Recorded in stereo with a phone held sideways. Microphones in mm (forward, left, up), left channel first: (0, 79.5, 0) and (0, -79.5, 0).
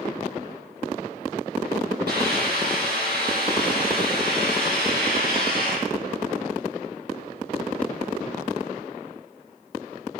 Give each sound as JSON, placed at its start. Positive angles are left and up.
{"t": 2.1, "sound": "a hiss", "side_deg": -80, "distance_m": 10.0}